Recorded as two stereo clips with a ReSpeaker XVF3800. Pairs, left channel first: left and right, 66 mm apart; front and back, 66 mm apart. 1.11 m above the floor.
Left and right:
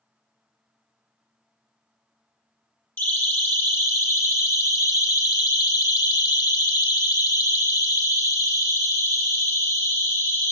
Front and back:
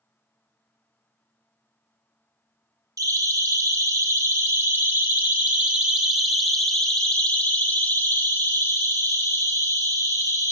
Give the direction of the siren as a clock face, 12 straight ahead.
7 o'clock.